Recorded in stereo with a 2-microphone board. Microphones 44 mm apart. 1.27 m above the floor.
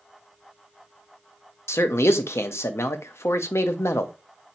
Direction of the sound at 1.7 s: 80° left.